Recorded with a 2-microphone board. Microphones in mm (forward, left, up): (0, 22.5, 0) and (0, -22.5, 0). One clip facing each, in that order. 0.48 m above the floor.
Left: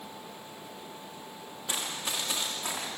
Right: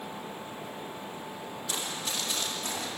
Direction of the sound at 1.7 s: 25° left (ahead or behind).